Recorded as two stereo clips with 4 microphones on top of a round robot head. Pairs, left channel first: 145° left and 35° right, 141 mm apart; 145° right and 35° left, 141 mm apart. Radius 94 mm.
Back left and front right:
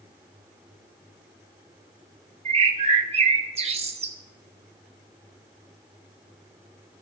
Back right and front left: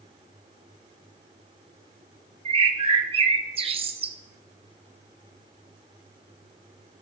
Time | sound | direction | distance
2.5 | a bird | 5° right | 0.8 m